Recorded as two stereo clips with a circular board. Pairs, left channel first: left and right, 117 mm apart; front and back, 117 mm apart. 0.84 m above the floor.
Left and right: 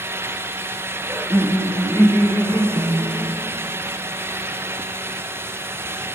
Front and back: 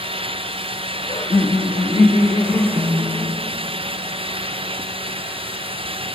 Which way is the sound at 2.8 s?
135° left.